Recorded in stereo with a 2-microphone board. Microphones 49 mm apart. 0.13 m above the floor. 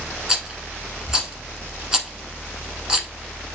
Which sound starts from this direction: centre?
A rattle, at 0.3 s.